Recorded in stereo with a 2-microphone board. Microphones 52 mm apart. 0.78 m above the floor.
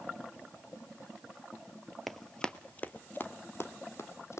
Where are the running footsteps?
Centre (ahead or behind), 0.9 m; by 4.4 s 60° left (ahead or behind), 1.7 m.